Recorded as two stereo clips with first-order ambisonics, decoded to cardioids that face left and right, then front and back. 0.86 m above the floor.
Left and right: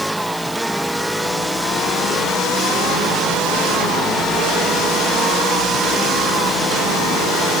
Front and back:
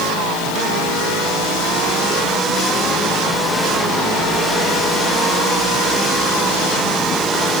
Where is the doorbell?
No doorbell in this recording.